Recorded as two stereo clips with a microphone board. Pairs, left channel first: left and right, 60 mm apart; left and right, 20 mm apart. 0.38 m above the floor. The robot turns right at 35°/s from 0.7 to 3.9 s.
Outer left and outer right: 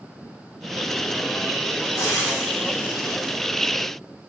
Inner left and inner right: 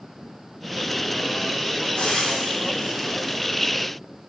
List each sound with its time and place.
1.9 s frying: 75° left (ahead or behind), 4.5 m; by 3.4 s 30° left (ahead or behind), 4.5 m